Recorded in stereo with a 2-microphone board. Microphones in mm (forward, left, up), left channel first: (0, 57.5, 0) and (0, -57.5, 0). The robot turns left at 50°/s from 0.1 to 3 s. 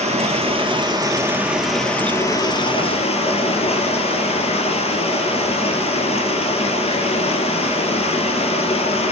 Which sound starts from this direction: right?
Running water, at 0.0 s.